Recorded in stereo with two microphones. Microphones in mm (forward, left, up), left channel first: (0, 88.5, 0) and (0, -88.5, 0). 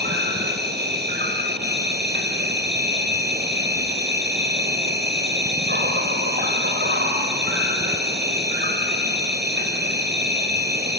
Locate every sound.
0.0 s an insect: 75° right (ahead or behind), 3.5 m